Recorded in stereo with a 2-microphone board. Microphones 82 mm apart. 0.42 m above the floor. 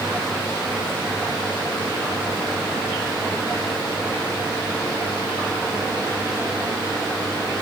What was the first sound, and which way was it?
Only background noise.